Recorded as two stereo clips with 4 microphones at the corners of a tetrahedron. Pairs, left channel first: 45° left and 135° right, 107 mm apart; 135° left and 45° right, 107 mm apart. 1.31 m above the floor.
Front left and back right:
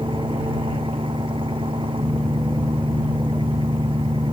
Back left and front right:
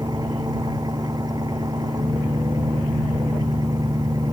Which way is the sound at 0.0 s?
95° right.